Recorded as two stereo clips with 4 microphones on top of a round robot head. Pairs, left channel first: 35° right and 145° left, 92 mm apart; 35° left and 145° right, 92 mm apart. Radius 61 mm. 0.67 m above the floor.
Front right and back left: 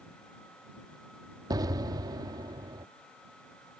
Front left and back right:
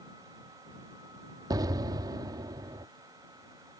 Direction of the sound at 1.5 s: Straight behind.